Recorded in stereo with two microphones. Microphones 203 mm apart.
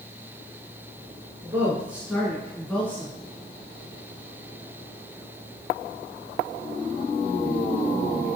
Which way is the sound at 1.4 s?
10° right (ahead or behind).